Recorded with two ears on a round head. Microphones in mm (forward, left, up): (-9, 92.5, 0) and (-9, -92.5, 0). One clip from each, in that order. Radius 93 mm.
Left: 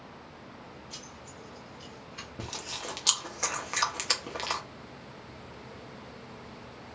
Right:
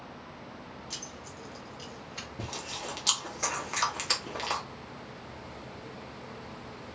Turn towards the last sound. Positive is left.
turn(degrees=15)  # may be behind; listen again after turning